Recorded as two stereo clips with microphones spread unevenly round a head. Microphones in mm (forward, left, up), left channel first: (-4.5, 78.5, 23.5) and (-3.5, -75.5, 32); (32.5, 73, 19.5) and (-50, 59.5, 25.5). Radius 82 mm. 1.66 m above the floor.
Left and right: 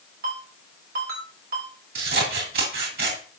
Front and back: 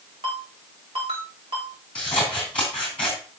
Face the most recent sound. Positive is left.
turn(degrees=-75)